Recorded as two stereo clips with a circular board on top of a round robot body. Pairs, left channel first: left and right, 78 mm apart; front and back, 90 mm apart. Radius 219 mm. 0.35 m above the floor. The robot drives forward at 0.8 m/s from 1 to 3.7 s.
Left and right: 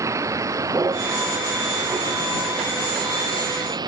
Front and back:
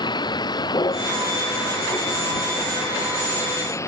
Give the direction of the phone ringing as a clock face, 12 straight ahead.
I don't hear a phone ringing.